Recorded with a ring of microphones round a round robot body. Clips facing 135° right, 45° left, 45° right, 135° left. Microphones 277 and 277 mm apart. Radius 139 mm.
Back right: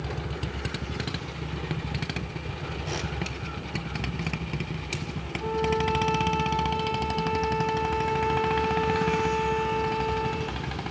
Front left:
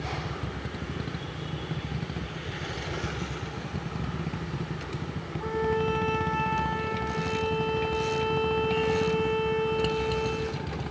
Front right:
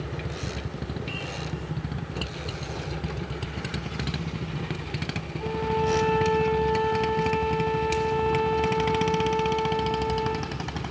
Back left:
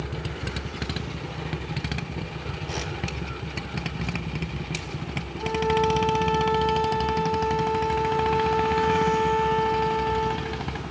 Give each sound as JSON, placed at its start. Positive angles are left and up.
{"t": 5.4, "sound": "a violin", "azimuth_deg": 80, "distance_m": 8.5}